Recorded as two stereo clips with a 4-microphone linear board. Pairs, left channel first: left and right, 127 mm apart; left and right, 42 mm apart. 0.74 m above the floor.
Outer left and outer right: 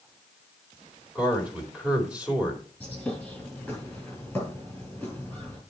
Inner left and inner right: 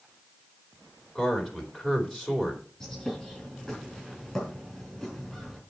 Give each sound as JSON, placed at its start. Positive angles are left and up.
{"t": 1.1, "sound": "a man speaking", "side_deg": -10, "distance_m": 2.5}
{"t": 2.8, "sound": "a bird", "side_deg": 10, "distance_m": 5.0}